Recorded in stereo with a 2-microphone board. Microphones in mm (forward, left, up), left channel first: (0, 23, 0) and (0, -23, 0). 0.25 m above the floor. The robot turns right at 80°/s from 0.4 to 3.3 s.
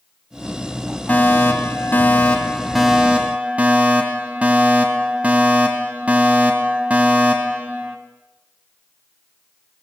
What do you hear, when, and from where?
1.1 s a fire alarm: 45° left, 3 m; by 8.0 s 135° right, 3 m